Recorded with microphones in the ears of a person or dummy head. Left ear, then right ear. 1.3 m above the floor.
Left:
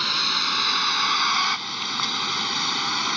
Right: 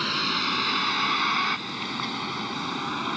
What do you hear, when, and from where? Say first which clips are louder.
0.0 s a vehicle: left 3 dB; 40° left (ahead or behind); by 3.2 s 75° left (ahead or behind)